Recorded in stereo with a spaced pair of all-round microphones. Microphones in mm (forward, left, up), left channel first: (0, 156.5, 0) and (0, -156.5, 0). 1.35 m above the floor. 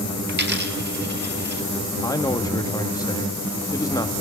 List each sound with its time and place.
0.3 s a dropped coin: 35° right (ahead or behind), 2.0 m
2.0 s a man speaking: 10° left (ahead or behind), 1.8 m